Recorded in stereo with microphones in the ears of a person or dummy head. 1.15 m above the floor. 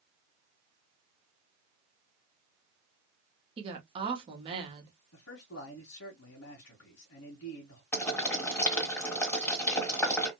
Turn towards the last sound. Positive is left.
turn(degrees=15)  # may be behind; listen again after turning